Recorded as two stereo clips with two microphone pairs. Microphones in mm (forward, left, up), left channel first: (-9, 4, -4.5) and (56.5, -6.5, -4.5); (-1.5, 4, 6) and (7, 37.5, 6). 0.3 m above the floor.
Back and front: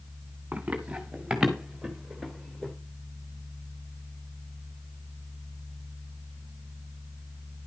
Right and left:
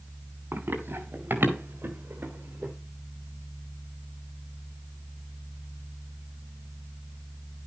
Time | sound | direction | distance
0.5 | running footsteps | 60° left | 3 m